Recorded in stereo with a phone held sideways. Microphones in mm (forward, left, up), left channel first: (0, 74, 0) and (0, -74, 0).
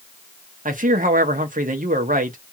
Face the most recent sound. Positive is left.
turn(degrees=-65)  # may be behind; listen again after turning